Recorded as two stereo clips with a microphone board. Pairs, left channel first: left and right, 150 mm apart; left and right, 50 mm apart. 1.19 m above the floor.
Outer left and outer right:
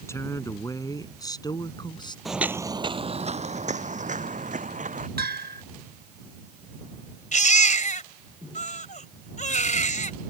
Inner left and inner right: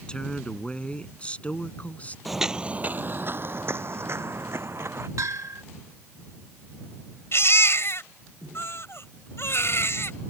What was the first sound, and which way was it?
A woman speaking, 15° left (ahead or behind).